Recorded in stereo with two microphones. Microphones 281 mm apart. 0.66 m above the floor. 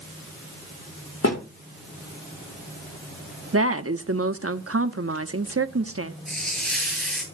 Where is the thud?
55° left (ahead or behind), 8.5 m.